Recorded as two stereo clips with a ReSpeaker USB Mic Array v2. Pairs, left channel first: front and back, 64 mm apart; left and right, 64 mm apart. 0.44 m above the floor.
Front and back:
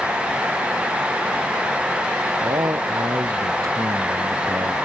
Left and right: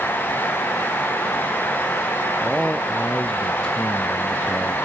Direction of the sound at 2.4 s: 165° left.